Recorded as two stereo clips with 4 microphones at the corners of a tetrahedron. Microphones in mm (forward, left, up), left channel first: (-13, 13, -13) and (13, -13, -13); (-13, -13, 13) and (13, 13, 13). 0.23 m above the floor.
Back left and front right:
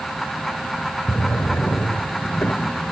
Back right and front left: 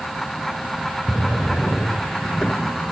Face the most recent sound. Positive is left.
turn(degrees=160)